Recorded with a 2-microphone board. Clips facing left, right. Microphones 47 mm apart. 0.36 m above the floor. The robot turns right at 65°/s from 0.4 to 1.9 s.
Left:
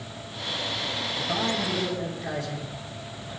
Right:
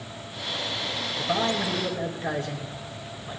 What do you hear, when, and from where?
1.2 s a man speaking: 120° right, 1.9 m; by 3.4 s 75° right, 1.9 m